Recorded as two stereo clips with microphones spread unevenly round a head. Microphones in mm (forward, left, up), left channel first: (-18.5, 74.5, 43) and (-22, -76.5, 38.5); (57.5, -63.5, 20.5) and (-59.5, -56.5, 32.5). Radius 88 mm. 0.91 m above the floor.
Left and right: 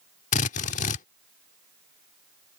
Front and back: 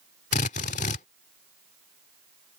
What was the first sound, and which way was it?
A drill, 45° left.